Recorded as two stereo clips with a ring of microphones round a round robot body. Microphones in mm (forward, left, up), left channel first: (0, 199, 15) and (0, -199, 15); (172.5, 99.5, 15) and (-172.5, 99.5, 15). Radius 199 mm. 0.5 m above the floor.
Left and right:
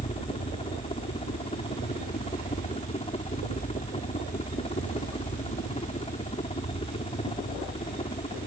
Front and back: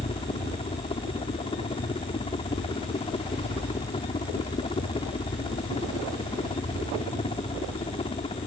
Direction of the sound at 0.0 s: 40° left.